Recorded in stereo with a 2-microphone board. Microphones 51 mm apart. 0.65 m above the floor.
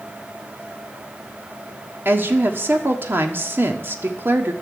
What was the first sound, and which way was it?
A woman speaking, 50° right (ahead or behind).